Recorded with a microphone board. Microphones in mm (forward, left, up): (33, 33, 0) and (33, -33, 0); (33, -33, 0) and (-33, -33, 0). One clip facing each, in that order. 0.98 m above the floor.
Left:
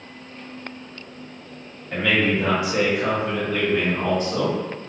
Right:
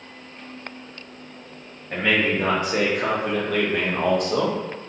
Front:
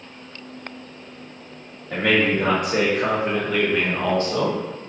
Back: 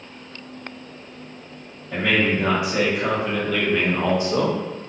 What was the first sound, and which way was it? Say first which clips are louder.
A man speaking: left 1 dB, front 1 dB; 30° right.